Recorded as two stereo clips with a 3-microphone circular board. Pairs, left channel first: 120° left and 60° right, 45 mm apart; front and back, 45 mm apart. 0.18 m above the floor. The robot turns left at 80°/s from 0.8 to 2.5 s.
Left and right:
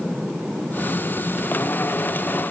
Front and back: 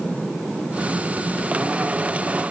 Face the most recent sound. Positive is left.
No sound to turn to.